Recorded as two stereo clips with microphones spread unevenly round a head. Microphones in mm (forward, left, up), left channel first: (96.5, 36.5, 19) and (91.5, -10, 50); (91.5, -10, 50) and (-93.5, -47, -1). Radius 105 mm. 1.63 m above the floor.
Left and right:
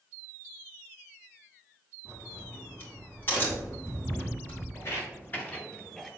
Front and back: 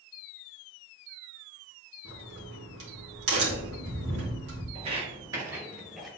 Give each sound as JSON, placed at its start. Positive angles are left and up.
{"t": 2.0, "sound": "a crack", "azimuth_deg": 155, "distance_m": 3.0}
{"t": 4.8, "sound": "footsteps", "azimuth_deg": 135, "distance_m": 1.7}